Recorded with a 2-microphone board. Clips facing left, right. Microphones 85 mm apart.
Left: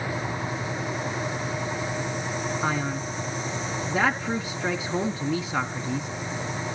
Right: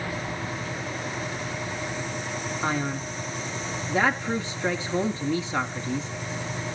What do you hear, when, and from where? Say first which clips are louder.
2.6 s a man speaking: right 2 dB; 10° left (ahead or behind), 1.3 m